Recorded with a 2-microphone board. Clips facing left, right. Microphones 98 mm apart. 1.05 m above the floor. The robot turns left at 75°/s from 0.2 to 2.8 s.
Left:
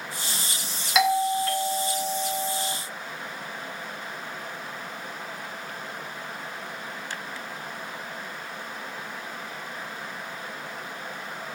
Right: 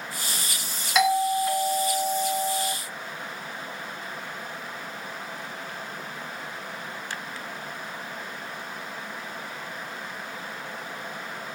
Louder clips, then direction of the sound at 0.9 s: Even; centre (ahead or behind).